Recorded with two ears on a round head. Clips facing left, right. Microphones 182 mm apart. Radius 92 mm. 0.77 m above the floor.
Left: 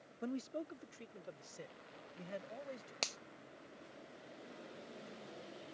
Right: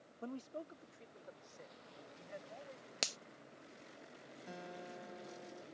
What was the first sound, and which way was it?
A man speaking, 15° left (ahead or behind).